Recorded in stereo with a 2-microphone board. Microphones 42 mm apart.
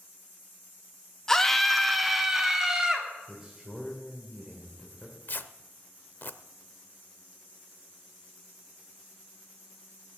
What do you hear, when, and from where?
1.3 s a scream: 10° left (ahead or behind), 1.3 m; by 3.1 s 15° right (ahead or behind), 2.5 m
3.3 s a man speaking: 15° right (ahead or behind), 2.5 m
5.3 s tearing paper: 50° left (ahead or behind), 0.7 m